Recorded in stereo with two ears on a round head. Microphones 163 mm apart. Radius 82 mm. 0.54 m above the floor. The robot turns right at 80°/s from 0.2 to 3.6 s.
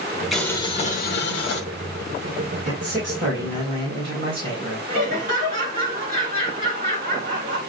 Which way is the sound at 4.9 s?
65° right (ahead or behind).